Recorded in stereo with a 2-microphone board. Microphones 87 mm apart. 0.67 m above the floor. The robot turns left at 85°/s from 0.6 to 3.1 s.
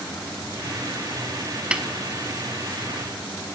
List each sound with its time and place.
1.7 s a snare drum: 15° right (ahead or behind), 0.6 m; by 1.8 s 5° right (ahead or behind), 0.6 m